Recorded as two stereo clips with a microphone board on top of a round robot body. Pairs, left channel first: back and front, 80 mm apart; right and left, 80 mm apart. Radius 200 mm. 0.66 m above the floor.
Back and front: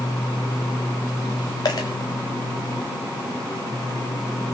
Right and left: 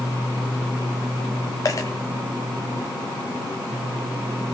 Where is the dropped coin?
140° right, 0.9 m.